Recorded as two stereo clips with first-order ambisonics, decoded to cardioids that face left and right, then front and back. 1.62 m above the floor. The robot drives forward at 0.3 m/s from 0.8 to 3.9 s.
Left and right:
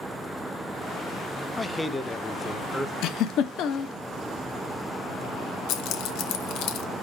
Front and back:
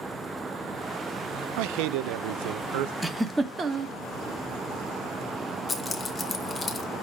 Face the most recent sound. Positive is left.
turn(degrees=80)